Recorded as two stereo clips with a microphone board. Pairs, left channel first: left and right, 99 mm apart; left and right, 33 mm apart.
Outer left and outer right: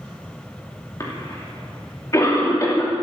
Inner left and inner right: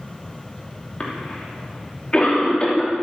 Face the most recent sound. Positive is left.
turn(degrees=35)  # may be behind; listen again after turning